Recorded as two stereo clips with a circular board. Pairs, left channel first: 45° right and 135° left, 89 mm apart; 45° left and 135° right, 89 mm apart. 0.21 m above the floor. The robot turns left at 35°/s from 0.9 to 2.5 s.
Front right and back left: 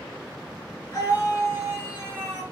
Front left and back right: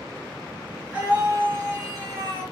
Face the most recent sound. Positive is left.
turn(degrees=-125)